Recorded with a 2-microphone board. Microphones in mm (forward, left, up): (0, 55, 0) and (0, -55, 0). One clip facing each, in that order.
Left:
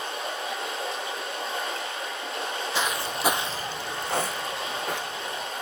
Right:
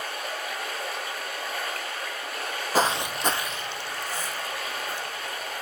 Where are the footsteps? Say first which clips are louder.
Right 7 dB; 45° right (ahead or behind), 0.8 m; by 5.5 s 75° left (ahead or behind), 3 m.